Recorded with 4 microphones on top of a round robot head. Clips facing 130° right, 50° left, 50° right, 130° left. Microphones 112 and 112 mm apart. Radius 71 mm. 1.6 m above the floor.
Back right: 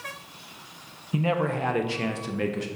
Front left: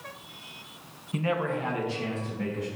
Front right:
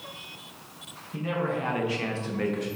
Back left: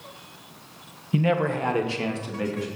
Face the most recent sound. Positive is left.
turn(degrees=-140)